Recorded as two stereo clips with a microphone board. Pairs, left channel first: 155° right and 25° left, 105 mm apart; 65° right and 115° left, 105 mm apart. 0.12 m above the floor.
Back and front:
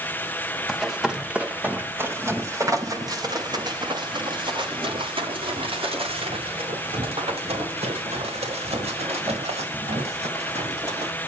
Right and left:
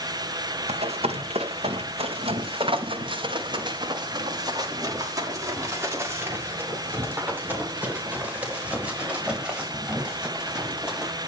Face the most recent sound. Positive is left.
turn(degrees=30)